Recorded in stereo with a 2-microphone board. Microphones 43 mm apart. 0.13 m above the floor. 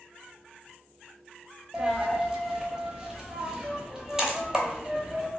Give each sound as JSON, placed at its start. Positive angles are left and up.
{"t": 1.7, "sound": "a dropped coin", "side_deg": -15, "distance_m": 0.5}